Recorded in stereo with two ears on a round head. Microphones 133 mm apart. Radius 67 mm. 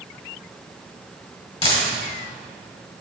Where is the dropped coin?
40° left (ahead or behind), 2.5 m.